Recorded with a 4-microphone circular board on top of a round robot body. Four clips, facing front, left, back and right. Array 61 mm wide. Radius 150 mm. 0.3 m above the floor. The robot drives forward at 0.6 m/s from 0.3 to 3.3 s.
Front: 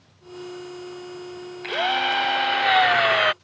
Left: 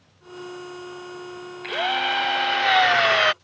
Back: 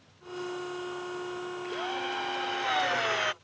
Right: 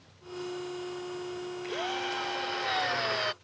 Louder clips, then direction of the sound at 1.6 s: Left 11 dB, front 13 dB; 40° left.